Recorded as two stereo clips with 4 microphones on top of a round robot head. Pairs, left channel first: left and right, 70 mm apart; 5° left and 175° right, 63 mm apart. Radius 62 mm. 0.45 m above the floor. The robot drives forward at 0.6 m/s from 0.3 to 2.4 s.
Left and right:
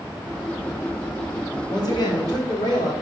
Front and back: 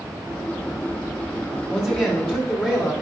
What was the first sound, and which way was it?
A man speaking, 80° left.